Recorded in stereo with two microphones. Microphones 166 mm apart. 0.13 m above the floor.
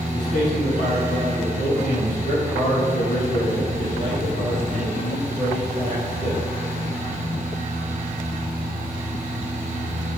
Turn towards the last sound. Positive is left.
turn(degrees=50)  # may be behind; listen again after turning